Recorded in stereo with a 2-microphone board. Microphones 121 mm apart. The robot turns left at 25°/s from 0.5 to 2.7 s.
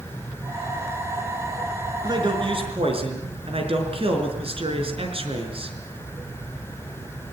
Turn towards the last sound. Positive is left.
turn(degrees=-50)  # may be behind; listen again after turning